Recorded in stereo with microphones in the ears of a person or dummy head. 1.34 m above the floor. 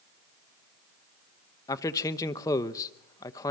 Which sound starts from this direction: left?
A man speaking, at 1.7 s.